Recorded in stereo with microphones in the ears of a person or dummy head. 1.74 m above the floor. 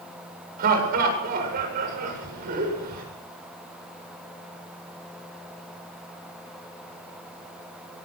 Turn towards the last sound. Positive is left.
turn(degrees=-50)  # may be behind; listen again after turning